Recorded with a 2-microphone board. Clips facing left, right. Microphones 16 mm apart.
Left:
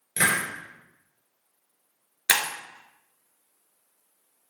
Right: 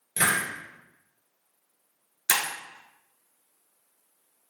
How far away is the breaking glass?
About 0.7 m.